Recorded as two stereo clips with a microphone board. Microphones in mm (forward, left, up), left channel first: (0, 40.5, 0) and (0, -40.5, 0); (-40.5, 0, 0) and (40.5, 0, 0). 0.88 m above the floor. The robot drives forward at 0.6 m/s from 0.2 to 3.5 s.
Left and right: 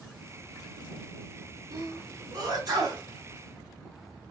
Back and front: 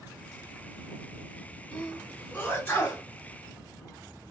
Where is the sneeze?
105° right, 2.0 m; by 3.0 s 125° right, 2.5 m.